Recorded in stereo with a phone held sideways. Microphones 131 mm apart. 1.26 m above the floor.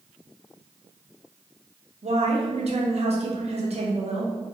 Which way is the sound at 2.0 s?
50° right (ahead or behind).